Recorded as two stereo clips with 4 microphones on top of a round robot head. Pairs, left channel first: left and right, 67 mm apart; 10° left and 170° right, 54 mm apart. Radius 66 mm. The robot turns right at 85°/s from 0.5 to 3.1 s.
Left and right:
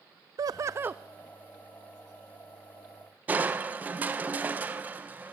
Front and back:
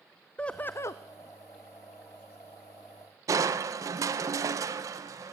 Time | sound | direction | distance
0.4 | laughter | 60° right | 0.5 m
3.3 | crushing | 155° right | 1.1 m